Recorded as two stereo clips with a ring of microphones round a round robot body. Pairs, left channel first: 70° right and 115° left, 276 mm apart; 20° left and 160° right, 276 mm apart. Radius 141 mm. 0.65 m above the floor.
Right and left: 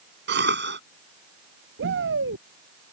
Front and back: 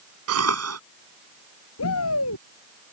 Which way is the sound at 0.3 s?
165° left.